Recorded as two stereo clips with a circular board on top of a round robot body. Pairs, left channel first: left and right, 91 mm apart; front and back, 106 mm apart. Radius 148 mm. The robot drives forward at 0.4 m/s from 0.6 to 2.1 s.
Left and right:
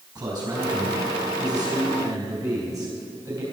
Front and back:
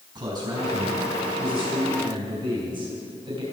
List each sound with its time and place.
0.1 s a man speaking: 135° right, 3.5 m; by 3.4 s 140° right, 3.5 m